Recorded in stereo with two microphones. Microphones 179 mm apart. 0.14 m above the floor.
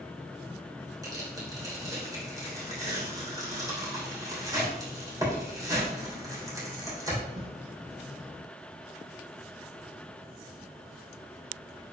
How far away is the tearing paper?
About 3 m.